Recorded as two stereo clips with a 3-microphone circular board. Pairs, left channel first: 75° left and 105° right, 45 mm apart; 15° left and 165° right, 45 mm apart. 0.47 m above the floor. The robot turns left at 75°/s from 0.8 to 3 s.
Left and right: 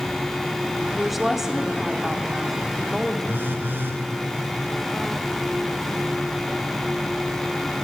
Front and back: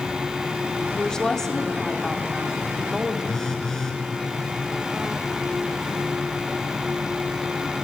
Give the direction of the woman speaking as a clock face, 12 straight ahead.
12 o'clock.